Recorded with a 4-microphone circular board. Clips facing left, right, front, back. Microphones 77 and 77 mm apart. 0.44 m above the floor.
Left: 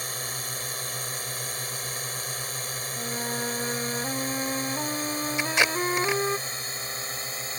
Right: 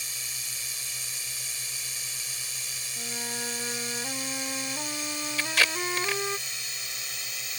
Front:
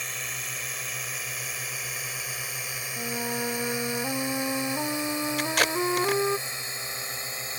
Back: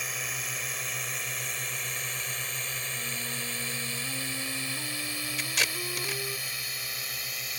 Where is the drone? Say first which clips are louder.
Left 7 dB, even; 90° left; by 7.6 s 50° left.